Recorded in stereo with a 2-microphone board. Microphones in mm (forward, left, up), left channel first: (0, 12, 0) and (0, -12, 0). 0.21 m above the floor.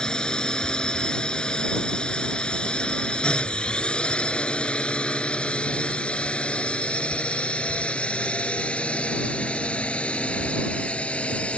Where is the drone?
40° left (ahead or behind); by 11.6 s 70° left (ahead or behind).